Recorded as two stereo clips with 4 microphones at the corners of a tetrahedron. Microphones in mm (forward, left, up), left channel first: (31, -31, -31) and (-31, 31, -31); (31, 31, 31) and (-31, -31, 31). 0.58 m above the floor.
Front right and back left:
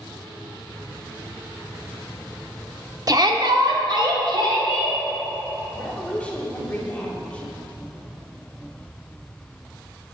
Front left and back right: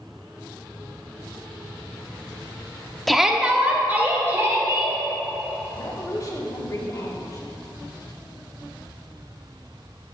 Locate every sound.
3.1 s a shout: 135° left, 0.9 m; by 5.0 s 165° left, 3 m
5.7 s a woman speaking: 25° left, 1.6 m